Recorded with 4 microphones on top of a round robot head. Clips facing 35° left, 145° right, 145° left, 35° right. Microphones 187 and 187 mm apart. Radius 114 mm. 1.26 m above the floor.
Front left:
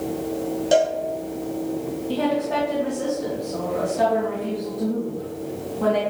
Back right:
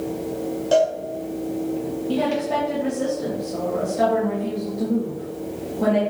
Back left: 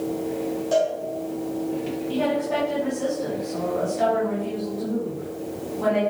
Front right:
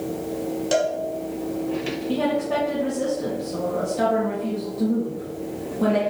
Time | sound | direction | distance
0.7 | a cowbell | 35° right | 1.3 m
2.1 | a woman speaking | 75° right | 2.5 m